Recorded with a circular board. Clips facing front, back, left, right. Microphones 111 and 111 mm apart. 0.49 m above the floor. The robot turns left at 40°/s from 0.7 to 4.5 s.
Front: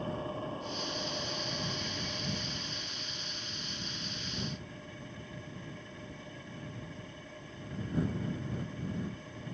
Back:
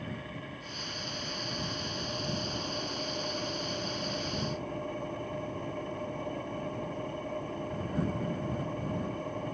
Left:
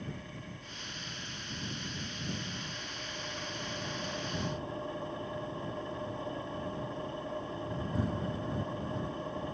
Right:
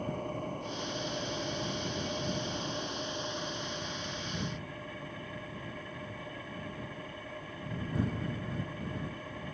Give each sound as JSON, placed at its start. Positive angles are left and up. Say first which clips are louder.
{"t": 0.0, "sound": "an engine running", "louder": "front 4 dB, right 8 dB", "azimuth_deg": -55}